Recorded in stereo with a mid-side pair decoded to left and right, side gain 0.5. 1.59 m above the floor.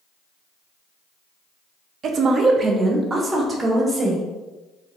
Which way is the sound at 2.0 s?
55° right.